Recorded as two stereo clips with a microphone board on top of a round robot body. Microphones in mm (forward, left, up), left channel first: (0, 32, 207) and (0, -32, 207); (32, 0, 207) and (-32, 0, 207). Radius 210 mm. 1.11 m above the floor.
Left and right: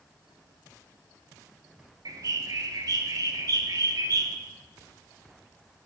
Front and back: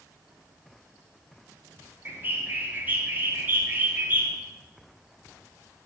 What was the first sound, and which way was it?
A bird, 120° right.